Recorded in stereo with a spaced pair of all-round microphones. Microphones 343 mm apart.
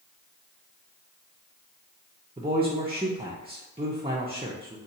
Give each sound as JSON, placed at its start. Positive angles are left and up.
{"t": 2.4, "sound": "a man speaking", "side_deg": -15, "distance_m": 0.5}